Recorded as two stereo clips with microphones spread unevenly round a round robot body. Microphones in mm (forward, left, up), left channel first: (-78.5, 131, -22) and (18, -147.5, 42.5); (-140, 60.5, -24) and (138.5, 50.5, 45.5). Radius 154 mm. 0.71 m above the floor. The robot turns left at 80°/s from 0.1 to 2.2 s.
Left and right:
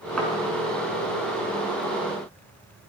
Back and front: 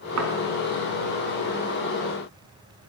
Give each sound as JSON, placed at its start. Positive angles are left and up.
{"t": 0.2, "sound": "a thud", "azimuth_deg": 20, "distance_m": 3.5}